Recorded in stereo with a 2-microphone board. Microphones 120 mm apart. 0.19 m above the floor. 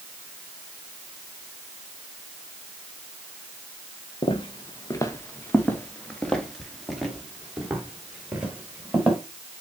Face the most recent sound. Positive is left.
turn(degrees=-10)  # may be behind; listen again after turning